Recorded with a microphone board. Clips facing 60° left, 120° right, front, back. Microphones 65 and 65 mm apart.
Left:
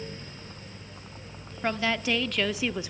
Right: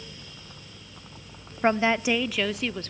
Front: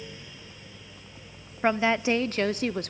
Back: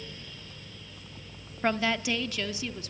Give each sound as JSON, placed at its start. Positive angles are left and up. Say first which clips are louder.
{"t": 1.6, "sound": "a woman speaking", "louder": "right 5 dB, front 4 dB", "azimuth_deg": -70, "distance_m": 0.8}